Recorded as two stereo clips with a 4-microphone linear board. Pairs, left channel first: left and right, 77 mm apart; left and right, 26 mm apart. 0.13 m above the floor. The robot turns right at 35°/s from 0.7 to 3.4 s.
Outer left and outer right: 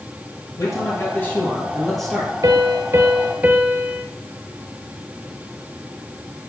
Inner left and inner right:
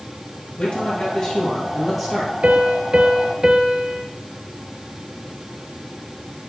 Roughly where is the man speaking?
Behind left.